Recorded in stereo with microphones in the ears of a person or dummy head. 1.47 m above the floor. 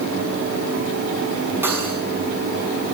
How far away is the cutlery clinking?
About 7.5 m.